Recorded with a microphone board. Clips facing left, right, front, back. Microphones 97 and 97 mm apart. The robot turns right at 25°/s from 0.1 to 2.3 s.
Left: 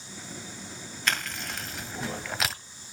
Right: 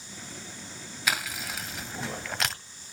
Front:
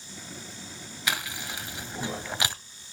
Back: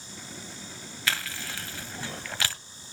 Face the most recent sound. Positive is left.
turn(degrees=5)